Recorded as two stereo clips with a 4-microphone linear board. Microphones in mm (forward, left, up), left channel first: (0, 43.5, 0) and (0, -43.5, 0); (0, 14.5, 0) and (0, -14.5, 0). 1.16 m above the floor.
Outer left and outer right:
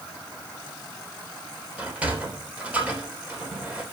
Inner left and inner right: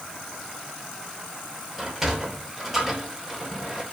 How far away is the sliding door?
About 3 m.